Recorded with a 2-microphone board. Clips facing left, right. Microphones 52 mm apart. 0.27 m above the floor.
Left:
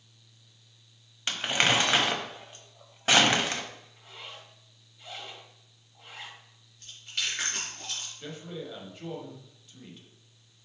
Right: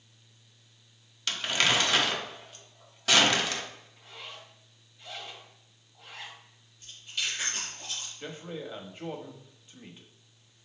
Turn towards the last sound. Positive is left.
turn(degrees=-25)  # may be behind; listen again after turning